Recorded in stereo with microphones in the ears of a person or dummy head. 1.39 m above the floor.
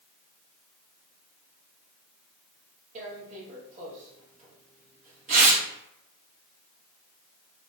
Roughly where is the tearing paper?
Right.